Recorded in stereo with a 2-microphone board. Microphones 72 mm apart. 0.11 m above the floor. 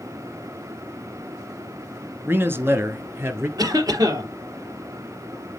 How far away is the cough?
About 3 m.